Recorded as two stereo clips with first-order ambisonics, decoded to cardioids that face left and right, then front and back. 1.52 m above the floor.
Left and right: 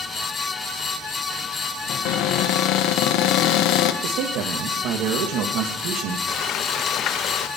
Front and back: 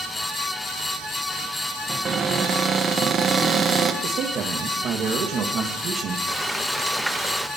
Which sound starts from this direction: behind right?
A man speaking, at 4.0 s.